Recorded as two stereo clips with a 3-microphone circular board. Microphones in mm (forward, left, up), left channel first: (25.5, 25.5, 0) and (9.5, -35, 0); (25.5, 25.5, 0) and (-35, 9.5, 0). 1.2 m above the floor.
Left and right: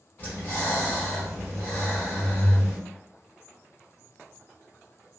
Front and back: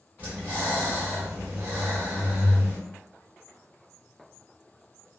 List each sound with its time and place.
0.2 s breathing: 135° left, 1.3 m